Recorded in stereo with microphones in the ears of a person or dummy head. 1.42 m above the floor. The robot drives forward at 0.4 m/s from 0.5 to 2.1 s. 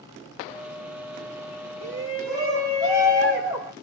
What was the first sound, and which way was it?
A shout, 25° right (ahead or behind).